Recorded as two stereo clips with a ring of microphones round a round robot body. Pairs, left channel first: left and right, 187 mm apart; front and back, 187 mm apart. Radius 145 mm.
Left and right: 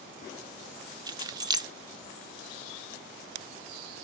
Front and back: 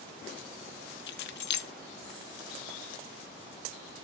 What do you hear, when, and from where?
1.1 s keys jangling: 20° right, 0.8 m